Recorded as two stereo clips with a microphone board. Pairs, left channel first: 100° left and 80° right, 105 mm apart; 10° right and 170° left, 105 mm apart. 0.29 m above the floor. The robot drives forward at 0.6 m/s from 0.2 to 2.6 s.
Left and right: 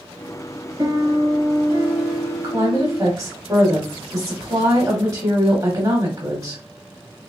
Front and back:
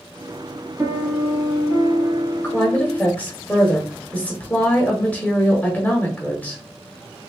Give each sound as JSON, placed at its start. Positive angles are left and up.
{"t": 0.8, "sound": "a piano", "azimuth_deg": -130, "distance_m": 1.4}
{"t": 2.4, "sound": "a woman speaking", "azimuth_deg": -70, "distance_m": 1.0}